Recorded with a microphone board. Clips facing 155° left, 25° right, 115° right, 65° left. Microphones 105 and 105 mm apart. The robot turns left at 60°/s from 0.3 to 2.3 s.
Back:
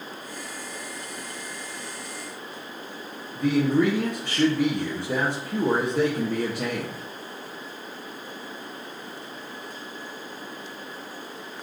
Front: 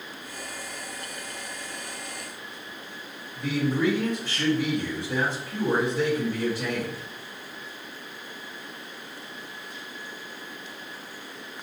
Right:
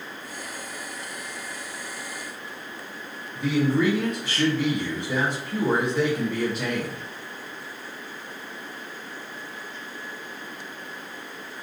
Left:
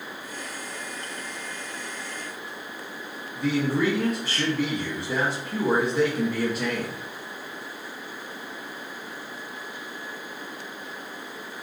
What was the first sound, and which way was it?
A man speaking, 155° left.